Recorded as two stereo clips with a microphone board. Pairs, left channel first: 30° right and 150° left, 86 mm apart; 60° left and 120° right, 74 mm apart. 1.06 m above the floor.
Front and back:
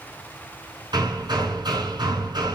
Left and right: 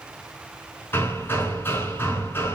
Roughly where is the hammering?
Behind left.